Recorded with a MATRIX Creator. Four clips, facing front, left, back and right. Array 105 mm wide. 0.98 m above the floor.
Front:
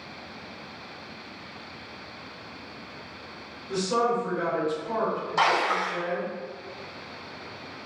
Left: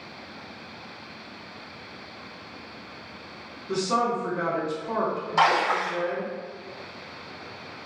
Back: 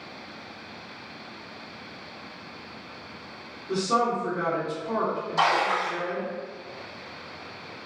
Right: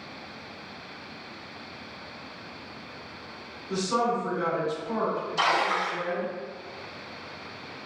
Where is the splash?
75° left, 1.4 m.